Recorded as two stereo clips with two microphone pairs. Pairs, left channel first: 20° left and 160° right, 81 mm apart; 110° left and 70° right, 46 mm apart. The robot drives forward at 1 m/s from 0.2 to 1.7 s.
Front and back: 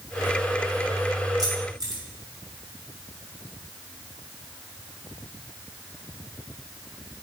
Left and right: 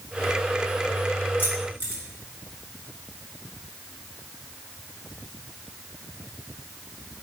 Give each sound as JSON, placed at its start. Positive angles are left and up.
{"t": 1.4, "sound": "keys jangling", "azimuth_deg": 155, "distance_m": 4.0}